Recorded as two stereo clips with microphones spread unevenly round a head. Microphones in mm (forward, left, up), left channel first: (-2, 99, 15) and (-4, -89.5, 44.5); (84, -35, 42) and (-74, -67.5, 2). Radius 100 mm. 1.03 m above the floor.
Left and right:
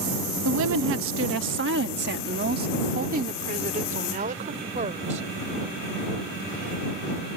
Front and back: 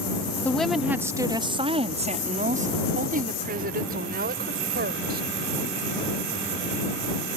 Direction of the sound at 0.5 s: 75° right.